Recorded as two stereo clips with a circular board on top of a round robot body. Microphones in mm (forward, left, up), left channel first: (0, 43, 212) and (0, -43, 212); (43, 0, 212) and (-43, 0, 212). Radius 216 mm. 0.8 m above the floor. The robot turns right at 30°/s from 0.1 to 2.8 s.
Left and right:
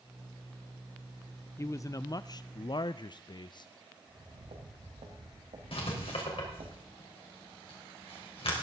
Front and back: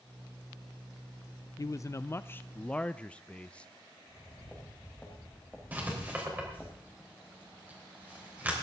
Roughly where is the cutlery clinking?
I don't hear cutlery clinking.